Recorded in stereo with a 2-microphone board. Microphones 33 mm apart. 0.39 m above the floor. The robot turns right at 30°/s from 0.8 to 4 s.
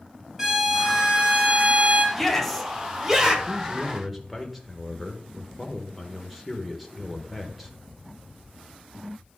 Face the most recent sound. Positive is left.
turn(degrees=0)  # may be behind; listen again after turning